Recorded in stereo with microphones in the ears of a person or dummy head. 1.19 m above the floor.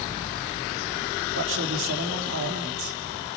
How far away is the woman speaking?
About 3 m.